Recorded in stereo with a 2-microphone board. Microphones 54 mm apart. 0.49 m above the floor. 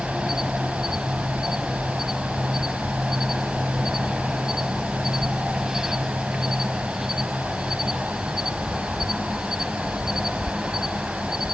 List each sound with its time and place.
0.0 s an insect: 10° right (ahead or behind), 0.7 m